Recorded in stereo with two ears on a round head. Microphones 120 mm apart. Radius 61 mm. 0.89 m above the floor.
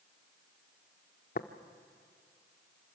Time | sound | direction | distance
1.4 | tapping | 65° left (ahead or behind) | 1.0 m